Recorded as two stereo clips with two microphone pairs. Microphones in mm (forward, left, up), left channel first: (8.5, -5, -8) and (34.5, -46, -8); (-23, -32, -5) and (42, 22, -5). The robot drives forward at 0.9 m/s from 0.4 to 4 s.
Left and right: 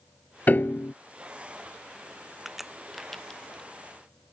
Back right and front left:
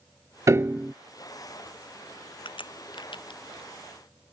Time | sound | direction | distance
0.5 | a piano | 75° left | ?
2.5 | a crack | 140° right | ?